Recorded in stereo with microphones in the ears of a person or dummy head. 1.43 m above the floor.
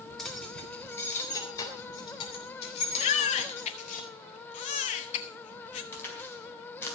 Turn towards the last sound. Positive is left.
turn(degrees=15)  # may be behind; listen again after turning